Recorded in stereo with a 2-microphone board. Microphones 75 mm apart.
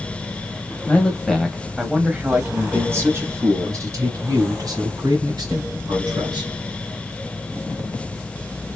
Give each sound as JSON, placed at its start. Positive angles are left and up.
{"t": 0.9, "sound": "a man speaking", "side_deg": 20, "distance_m": 1.1}